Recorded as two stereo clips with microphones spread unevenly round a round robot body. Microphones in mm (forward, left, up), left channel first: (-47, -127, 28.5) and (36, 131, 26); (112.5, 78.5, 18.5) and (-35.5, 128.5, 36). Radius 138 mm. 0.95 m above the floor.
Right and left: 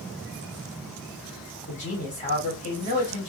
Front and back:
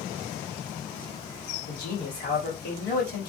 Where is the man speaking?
40° right, 2.5 m.